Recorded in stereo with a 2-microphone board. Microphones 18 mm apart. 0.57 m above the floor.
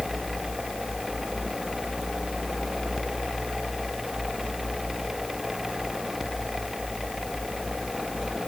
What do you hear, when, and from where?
Only background noise.